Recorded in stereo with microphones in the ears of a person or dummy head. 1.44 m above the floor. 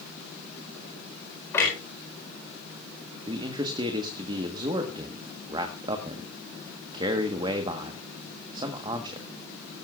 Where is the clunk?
15° left (ahead or behind), 4.5 m.